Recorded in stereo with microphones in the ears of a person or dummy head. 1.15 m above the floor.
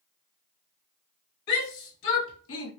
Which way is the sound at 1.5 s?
70° left (ahead or behind).